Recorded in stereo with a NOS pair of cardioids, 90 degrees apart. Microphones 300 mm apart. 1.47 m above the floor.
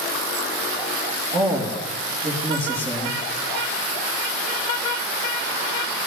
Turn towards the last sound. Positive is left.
turn(degrees=-20)